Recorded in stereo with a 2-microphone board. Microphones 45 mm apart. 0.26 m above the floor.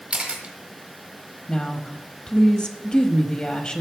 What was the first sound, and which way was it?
A camera shutter, 30° right (ahead or behind).